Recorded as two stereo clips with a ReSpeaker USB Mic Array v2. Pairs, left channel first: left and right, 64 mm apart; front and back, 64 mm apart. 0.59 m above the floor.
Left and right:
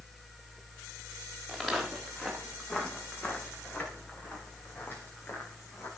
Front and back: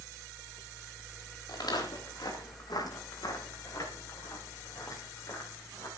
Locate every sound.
1.5 s footsteps: 5° left, 6 m; by 5.9 s 40° left, 8.5 m